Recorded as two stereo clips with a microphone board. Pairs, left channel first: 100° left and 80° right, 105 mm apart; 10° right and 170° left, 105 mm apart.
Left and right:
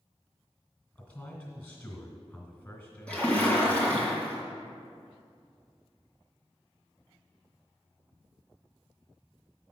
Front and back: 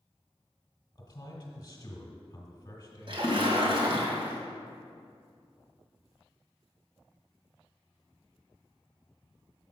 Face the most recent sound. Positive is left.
turn(degrees=175)